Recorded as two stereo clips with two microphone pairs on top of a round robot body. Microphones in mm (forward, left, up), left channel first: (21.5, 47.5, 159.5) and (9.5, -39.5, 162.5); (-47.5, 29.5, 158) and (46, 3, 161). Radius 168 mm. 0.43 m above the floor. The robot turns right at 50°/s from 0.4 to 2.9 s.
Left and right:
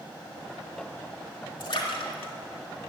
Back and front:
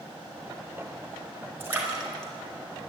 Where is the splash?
50° left, 3 m; by 2.9 s 115° left, 3 m.